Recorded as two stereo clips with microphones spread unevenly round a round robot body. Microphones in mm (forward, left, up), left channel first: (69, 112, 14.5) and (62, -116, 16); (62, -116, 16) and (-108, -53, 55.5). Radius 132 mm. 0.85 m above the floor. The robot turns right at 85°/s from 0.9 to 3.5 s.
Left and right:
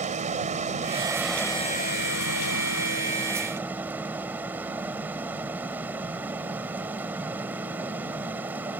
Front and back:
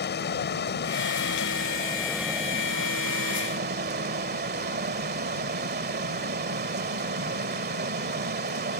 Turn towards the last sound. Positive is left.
turn(degrees=-175)